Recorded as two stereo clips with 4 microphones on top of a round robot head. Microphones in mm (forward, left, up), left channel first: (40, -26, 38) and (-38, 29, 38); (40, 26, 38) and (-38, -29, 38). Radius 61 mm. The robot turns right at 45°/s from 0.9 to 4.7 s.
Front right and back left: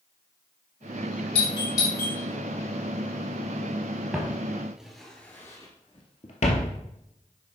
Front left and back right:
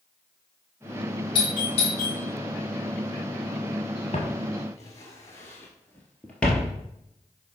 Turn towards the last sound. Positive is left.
turn(degrees=-50)